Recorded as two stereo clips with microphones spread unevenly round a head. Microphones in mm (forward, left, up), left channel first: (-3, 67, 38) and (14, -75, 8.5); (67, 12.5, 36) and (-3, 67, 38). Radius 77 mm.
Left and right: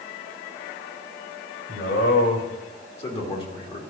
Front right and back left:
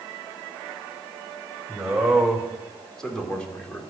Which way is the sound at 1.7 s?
60° left.